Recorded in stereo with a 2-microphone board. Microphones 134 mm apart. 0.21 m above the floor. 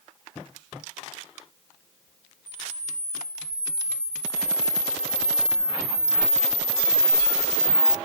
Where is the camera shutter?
5° right (ahead or behind), 0.9 m.